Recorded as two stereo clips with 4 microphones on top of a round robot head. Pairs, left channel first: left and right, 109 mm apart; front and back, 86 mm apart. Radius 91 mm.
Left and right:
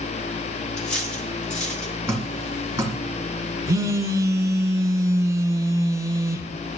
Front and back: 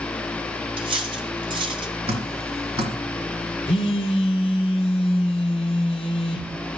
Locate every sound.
0.8 s cutlery clinking: 170° left, 1.6 m
2.1 s dripping: 160° right, 2 m
3.7 s a phone buzzing: 25° right, 1.1 m